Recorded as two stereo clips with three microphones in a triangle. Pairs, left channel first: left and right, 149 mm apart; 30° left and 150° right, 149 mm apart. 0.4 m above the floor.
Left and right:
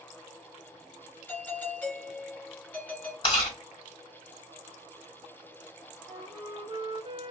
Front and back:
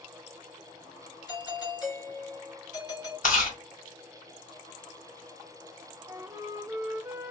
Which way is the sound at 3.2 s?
40° left.